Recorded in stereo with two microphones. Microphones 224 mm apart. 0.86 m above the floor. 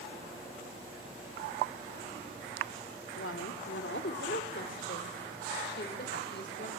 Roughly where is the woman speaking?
Left.